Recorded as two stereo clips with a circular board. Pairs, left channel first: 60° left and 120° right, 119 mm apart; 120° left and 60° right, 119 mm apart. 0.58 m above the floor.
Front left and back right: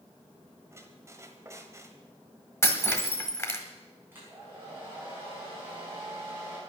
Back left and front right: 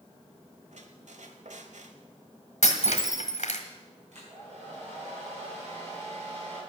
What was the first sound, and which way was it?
A squeak, 55° right.